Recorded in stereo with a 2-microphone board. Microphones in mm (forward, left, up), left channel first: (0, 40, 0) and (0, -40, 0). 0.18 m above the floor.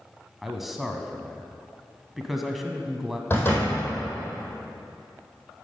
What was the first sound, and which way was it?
A man speaking, centre (ahead or behind).